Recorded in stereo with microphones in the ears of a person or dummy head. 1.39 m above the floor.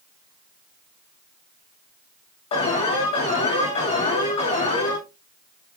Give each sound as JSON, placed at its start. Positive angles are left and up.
{"t": 2.5, "sound": "an alarm", "side_deg": 30, "distance_m": 6.5}